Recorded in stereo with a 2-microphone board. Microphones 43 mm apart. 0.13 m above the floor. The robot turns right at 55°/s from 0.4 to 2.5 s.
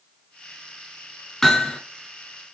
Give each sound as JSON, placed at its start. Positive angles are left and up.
{"t": 1.4, "sound": "hammering", "side_deg": 5, "distance_m": 1.4}